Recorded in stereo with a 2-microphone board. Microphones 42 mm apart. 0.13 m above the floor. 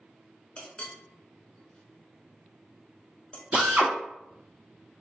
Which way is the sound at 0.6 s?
25° left (ahead or behind).